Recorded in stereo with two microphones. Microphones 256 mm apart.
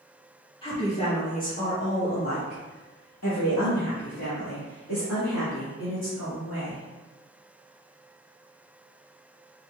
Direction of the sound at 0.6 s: 20° left (ahead or behind).